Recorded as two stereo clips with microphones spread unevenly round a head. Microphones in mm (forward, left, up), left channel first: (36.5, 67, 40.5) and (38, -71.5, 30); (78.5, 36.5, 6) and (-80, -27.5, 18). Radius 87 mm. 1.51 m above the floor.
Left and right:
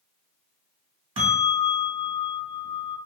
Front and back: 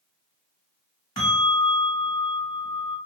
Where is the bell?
45° right, 1.1 m.